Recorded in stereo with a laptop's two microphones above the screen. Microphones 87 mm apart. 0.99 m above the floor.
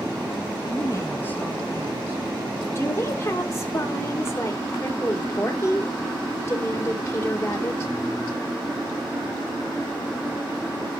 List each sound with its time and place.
0.6 s a woman speaking: 55° left (ahead or behind), 1.7 m; by 2.6 s 35° right (ahead or behind), 2.5 m
2.8 s a woman speaking: 30° left (ahead or behind), 3 m